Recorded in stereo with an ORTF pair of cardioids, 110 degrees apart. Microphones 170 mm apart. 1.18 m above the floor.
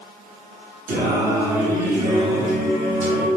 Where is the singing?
55° right, 1.0 m.